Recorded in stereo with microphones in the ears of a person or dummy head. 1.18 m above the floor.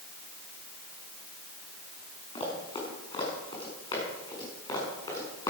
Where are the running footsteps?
30° left (ahead or behind), 6.5 m; by 5.5 s 20° left (ahead or behind), 8 m.